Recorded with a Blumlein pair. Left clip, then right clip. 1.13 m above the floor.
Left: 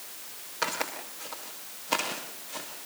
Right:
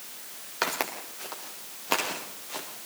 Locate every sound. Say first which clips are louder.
0.6 s footsteps: right 2 dB; 25° right, 6 m; by 2.7 s 30° right, 7 m